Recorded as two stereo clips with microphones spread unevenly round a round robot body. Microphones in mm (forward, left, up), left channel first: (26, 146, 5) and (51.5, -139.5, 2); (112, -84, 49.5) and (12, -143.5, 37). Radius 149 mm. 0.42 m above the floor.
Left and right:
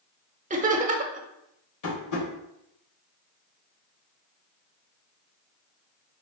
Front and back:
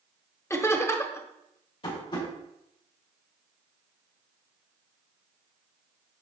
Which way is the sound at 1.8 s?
80° left.